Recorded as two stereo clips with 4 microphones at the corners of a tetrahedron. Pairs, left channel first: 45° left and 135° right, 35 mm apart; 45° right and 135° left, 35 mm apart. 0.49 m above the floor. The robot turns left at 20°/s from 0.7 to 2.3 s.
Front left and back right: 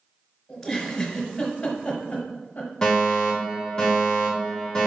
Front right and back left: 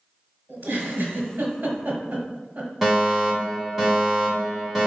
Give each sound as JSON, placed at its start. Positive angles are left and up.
{"t": 0.5, "sound": "a giggle", "azimuth_deg": 125, "distance_m": 1.0}
{"t": 2.8, "sound": "a fire alarm", "azimuth_deg": 70, "distance_m": 1.6}